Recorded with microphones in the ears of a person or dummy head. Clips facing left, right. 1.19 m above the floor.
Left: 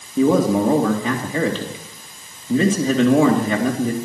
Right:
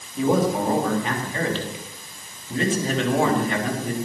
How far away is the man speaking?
About 2.5 m.